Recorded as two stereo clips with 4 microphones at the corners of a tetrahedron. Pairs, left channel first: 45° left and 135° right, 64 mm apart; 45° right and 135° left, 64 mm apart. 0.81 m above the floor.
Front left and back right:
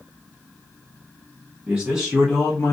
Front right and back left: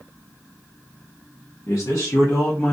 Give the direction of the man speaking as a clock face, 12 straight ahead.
2 o'clock.